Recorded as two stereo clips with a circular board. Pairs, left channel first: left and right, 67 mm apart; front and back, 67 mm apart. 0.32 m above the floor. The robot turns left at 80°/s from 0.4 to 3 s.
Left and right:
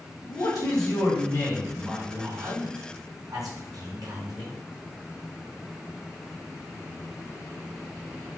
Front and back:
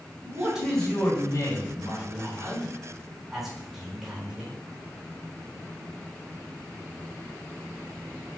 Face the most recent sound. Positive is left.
turn(degrees=-95)